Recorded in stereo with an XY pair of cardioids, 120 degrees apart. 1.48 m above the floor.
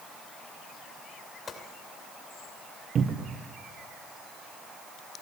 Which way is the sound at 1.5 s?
35° left.